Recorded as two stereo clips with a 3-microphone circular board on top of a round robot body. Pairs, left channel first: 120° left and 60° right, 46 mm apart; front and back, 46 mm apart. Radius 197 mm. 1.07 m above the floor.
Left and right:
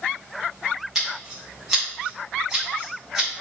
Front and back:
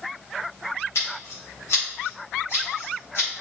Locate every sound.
0.9 s scissors: 25° left, 1.6 m